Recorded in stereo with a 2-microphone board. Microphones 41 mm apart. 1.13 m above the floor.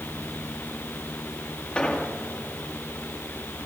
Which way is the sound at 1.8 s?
25° left (ahead or behind).